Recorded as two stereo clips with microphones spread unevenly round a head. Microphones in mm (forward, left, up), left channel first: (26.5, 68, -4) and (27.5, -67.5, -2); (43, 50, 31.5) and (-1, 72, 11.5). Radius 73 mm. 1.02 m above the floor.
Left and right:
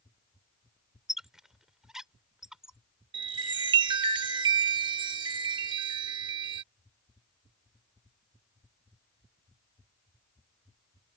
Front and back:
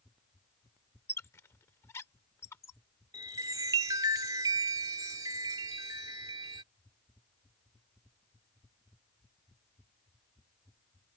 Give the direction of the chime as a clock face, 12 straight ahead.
5 o'clock.